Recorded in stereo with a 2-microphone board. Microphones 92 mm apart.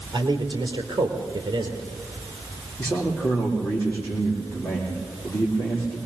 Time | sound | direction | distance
0.1 | a man speaking | 50° right (ahead or behind) | 3.5 m
2.8 | a man speaking | 20° left (ahead or behind) | 7.5 m